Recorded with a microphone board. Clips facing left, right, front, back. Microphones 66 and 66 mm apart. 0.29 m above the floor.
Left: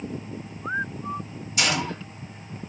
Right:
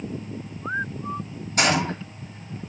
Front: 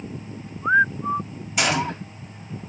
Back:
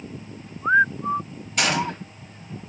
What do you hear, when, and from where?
1.6 s a gunshot: 80° right, 1.9 m